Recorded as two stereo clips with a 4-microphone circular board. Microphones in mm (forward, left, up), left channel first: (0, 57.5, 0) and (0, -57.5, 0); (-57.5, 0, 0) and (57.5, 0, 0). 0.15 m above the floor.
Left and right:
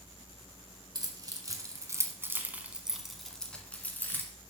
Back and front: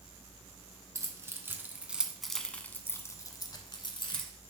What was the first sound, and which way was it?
Keys jangling, 50° right.